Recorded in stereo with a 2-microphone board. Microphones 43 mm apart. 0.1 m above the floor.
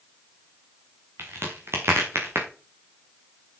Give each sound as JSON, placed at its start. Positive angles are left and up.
{"t": 1.2, "sound": "a crack", "side_deg": -70, "distance_m": 2.5}